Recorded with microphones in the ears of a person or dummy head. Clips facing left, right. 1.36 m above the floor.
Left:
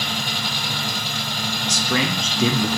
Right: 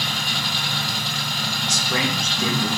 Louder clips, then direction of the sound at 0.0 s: Left 1 dB; 20° left (ahead or behind).